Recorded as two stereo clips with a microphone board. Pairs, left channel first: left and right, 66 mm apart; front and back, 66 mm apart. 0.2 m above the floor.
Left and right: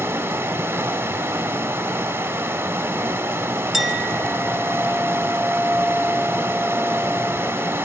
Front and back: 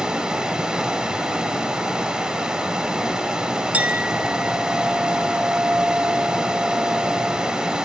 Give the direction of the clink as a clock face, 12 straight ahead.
6 o'clock.